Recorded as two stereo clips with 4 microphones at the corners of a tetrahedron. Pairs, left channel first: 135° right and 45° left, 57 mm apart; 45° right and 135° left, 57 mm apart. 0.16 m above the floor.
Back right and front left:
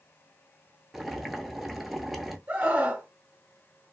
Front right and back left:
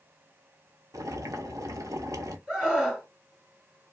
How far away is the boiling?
About 0.6 m.